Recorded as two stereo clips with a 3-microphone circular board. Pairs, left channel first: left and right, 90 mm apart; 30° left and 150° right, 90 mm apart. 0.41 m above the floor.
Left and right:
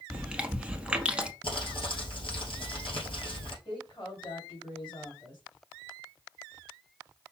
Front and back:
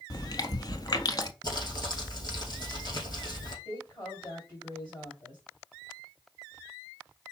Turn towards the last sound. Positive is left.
turn(degrees=60)